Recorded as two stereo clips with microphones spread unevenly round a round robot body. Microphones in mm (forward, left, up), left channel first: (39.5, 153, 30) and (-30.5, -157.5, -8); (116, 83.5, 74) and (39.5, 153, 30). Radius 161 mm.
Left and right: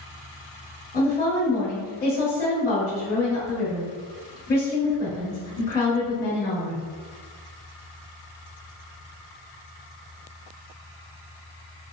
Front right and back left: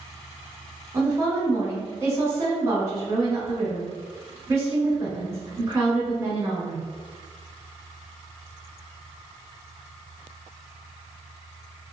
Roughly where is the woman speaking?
Behind left.